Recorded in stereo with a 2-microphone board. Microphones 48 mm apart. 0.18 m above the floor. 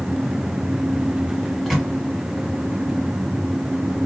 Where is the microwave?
5° left (ahead or behind), 0.9 m.